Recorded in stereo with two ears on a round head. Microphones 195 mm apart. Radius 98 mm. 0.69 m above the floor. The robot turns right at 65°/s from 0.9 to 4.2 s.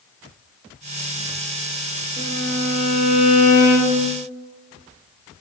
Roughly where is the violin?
Ahead left.